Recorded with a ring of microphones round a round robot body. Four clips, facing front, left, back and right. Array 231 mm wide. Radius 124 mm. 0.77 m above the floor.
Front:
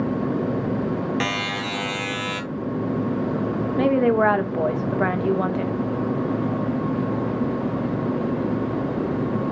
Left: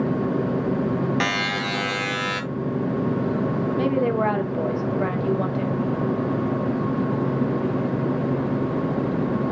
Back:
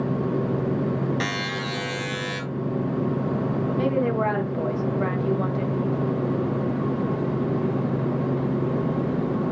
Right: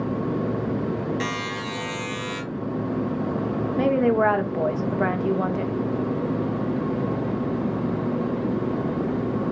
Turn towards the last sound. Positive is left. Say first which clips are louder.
# right 3 dB, front 6 dB
turn(degrees=-20)